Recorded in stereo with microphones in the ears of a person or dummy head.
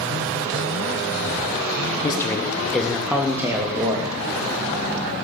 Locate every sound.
2.0 s a man speaking: 20° left (ahead or behind), 1.5 m; by 4.1 s 25° right (ahead or behind), 2 m